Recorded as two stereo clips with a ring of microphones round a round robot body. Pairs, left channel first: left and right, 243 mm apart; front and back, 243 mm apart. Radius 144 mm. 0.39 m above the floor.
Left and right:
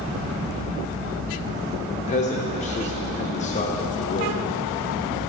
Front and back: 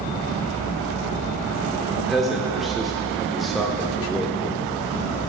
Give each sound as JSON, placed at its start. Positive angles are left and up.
{"t": 1.9, "sound": "a man speaking", "azimuth_deg": 90, "distance_m": 0.8}